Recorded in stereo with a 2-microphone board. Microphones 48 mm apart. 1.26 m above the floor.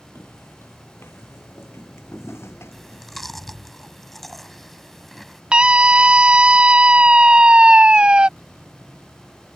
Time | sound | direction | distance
0.1 | footsteps | 65° left (ahead or behind) | ?
2.7 | chewing | 5° left (ahead or behind) | ?
5.5 | a scream | 20° right (ahead or behind) | ?